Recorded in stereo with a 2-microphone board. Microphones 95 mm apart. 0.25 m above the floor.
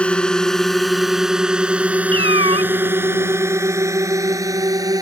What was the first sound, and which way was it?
A drone, 10° left (ahead or behind).